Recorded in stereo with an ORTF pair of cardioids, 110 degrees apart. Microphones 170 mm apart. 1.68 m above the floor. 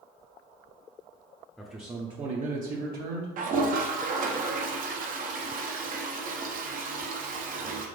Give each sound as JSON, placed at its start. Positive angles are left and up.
{"t": 1.6, "sound": "a man speaking", "azimuth_deg": 0, "distance_m": 0.7}
{"t": 3.4, "sound": "a toilet flushing", "azimuth_deg": -55, "distance_m": 0.7}